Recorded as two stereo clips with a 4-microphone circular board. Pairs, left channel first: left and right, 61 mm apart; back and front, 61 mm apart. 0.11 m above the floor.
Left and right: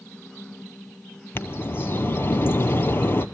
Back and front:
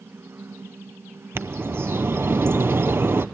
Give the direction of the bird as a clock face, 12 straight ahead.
11 o'clock.